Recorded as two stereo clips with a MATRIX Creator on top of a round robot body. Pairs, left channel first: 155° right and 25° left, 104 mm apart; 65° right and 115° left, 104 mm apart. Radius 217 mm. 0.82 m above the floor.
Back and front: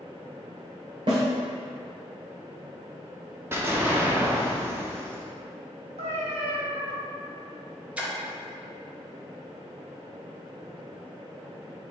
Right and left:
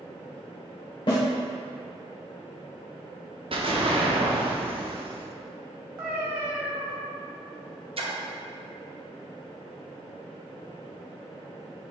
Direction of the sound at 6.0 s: 35° left.